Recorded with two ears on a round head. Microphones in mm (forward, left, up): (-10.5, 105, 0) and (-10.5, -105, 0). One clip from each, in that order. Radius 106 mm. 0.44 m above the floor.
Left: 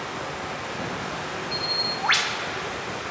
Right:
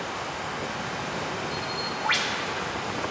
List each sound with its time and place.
0.0 s running water: centre (ahead or behind), 4.5 m
1.5 s a bird: 25° left (ahead or behind), 0.6 m